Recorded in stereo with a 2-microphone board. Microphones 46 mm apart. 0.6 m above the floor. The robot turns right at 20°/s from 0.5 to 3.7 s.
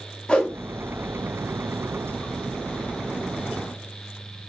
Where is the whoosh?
20° left (ahead or behind), 0.7 m.